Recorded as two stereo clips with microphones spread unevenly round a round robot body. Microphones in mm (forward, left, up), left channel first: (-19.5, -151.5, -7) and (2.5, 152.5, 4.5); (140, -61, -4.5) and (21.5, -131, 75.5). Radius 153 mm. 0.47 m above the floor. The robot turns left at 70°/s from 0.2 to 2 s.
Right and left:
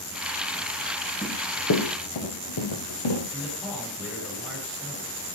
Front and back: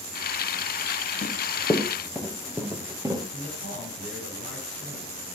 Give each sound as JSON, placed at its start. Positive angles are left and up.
{"t": 1.2, "sound": "running footsteps", "azimuth_deg": -5, "distance_m": 3.0}
{"t": 3.3, "sound": "a man speaking", "azimuth_deg": 175, "distance_m": 8.5}